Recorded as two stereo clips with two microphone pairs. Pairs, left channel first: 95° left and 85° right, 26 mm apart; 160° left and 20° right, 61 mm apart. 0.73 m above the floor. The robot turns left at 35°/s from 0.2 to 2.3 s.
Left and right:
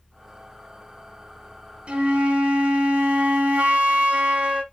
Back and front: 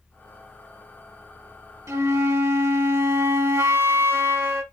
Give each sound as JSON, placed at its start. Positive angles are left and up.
{"t": 1.9, "sound": "a flute", "azimuth_deg": -45, "distance_m": 1.2}